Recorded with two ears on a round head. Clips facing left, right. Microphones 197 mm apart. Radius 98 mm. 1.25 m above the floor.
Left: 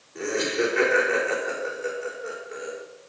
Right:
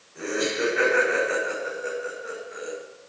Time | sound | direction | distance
0.1 | laughter | 60° left (ahead or behind) | 5.5 m